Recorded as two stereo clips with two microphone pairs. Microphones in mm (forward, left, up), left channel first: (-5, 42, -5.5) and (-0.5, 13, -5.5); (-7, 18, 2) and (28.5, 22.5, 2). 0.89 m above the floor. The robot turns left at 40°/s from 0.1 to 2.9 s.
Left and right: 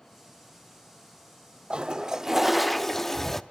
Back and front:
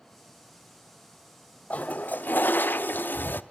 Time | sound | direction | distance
1.7 | a toilet flushing | 135° right | 0.6 m